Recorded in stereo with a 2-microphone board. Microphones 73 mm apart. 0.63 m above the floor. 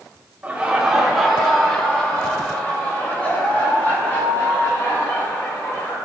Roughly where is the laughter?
Centre.